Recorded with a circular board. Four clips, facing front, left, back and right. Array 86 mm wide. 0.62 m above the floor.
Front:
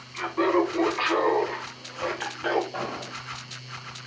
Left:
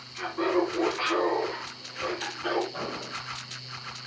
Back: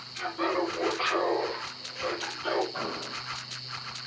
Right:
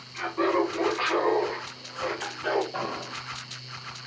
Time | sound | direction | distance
0.1 | laughter | 10° right | 5.5 m
2.7 | an explosion | 40° right | 4.5 m